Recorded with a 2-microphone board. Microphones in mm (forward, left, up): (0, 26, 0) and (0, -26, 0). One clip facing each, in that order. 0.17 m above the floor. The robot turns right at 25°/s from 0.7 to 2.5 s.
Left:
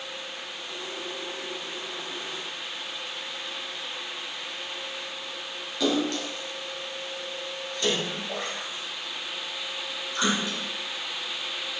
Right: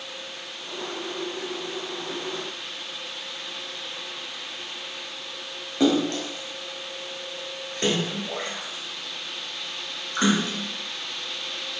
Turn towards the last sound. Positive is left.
turn(degrees=-40)  # may be behind; listen again after turning